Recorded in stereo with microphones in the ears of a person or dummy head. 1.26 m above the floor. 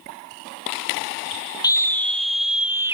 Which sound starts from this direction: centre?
A scream, at 1.6 s.